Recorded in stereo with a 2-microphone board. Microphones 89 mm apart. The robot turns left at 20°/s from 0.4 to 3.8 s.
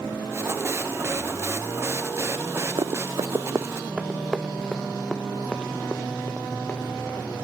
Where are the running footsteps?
55° right (ahead or behind), 0.5 m; by 7.5 s 15° left (ahead or behind), 3 m.